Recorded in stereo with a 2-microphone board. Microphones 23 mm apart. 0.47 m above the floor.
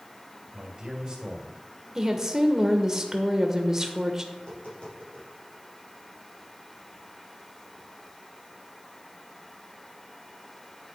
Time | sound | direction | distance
0.5 | a man speaking | 25° right (ahead or behind) | 1.9 m
1.9 | a woman speaking | 20° right (ahead or behind) | 1.1 m
4.3 | tapping | 60° left (ahead or behind) | 4.5 m